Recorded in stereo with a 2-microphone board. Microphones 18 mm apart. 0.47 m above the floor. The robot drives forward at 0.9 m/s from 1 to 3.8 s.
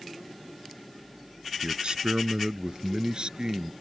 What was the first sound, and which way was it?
A man speaking, 55° right (ahead or behind).